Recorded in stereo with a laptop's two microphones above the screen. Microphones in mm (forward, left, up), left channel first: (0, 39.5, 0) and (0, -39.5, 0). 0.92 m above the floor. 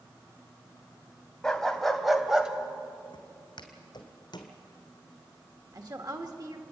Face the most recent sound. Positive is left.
turn(degrees=-50)  # may be behind; listen again after turning